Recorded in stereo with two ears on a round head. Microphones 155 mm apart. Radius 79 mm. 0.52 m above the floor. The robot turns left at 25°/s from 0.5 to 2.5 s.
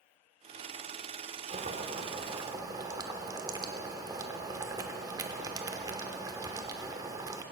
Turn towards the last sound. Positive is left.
turn(degrees=-20)  # may be behind; listen again after turning